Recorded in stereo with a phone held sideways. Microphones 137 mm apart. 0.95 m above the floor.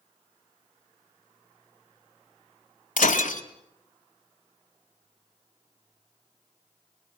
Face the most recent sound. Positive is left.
turn(degrees=75)  # may be behind; listen again after turning